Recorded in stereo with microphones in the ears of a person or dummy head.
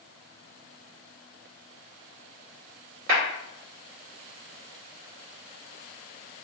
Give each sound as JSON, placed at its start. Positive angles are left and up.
{"t": 3.1, "sound": "a clap", "side_deg": -70, "distance_m": 1.5}